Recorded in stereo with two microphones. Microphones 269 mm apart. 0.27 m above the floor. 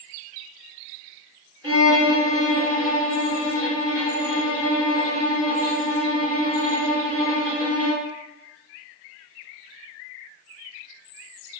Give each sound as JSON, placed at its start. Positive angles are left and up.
{"t": 1.6, "sound": "a violin", "side_deg": -50, "distance_m": 0.7}